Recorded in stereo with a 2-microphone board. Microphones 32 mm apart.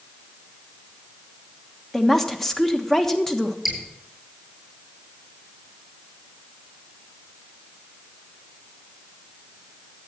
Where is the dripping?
10° right (ahead or behind), 8.5 m.